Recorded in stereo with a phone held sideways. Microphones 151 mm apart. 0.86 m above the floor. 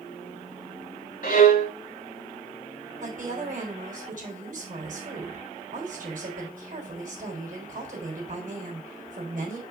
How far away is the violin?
About 1.4 m.